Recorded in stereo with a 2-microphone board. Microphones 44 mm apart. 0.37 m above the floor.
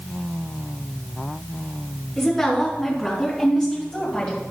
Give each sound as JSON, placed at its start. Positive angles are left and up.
{"t": 2.2, "sound": "a woman speaking", "side_deg": 20, "distance_m": 3.5}